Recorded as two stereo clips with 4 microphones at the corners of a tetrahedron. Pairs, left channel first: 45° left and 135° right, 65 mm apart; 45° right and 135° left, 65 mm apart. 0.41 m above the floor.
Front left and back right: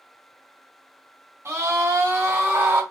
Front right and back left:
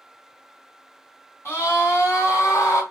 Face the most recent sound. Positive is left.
turn(degrees=-80)